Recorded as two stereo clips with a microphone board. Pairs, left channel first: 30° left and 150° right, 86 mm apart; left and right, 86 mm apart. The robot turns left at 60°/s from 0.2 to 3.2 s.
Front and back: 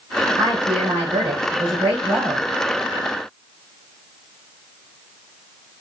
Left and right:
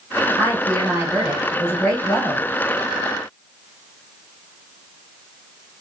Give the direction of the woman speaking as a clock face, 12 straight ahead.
4 o'clock.